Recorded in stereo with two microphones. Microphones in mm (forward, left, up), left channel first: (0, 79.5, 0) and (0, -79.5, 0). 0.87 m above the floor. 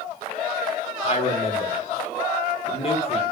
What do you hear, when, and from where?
1.0 s a man speaking: 40° left (ahead or behind), 0.8 m